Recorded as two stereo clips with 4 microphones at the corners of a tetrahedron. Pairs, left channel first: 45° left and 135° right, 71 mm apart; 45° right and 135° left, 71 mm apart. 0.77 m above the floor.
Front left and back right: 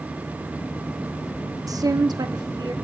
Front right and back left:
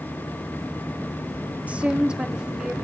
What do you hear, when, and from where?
1.7 s a woman speaking: 160° right, 0.7 m; by 2.7 s 145° right, 1.6 m